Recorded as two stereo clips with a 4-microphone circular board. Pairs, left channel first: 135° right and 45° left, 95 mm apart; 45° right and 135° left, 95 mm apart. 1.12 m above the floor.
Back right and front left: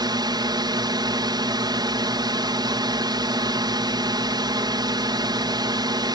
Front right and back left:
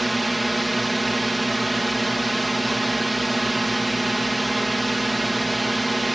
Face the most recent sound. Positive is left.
turn(degrees=45)